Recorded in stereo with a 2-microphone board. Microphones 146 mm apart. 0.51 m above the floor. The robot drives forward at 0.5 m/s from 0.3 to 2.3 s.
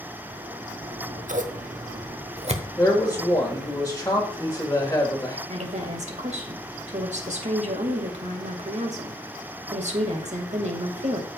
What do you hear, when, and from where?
0.8 s scissors: 60° right (ahead or behind), 0.9 m; by 3.8 s 45° right (ahead or behind), 1.0 m
2.8 s a man speaking: 20° left (ahead or behind), 1.7 m
5.5 s a woman speaking: 55° right (ahead or behind), 2 m